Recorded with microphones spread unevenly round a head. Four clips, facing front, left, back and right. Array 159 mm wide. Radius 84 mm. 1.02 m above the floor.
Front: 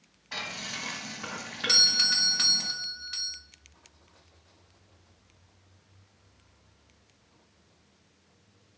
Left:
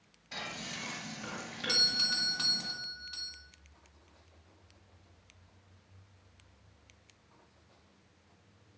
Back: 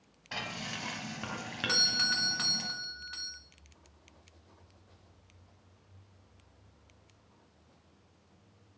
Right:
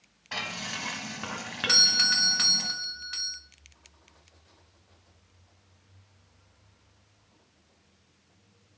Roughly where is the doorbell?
Behind right.